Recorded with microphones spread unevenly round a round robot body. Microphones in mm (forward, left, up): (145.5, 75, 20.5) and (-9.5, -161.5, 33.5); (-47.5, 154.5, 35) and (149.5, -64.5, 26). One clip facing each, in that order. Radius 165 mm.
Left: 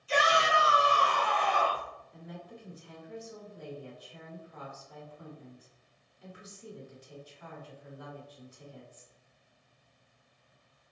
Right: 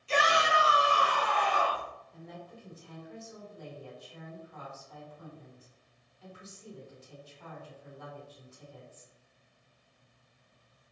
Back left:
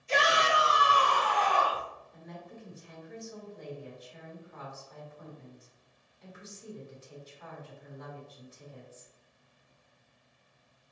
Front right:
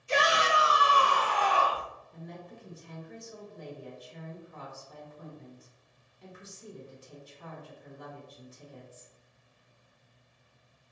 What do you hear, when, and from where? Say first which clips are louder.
0.1 s a shout: left 1 dB, even; 105° right, 1.0 m; by 1.9 s 30° right, 1.3 m
2.1 s a woman speaking: left 3 dB, front right 4 dB; 10° right, 1.5 m